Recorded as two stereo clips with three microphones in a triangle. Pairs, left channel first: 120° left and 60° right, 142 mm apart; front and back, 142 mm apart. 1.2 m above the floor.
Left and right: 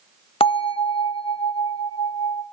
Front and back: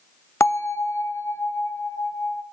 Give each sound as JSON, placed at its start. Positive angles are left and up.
{"t": 0.4, "sound": "a bell", "azimuth_deg": 70, "distance_m": 0.9}